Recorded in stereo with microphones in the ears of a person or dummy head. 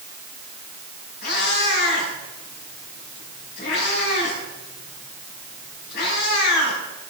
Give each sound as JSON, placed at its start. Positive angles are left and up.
{"t": 1.2, "sound": "a cat meowing", "side_deg": 60, "distance_m": 6.5}